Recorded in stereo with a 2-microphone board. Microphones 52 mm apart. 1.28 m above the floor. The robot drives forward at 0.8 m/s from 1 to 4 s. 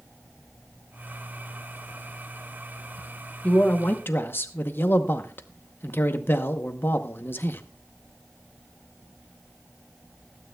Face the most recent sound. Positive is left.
turn(degrees=45)  # may be behind; listen again after turning